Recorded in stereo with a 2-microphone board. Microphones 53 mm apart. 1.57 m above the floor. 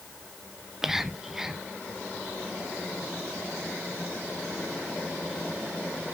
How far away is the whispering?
About 0.7 m.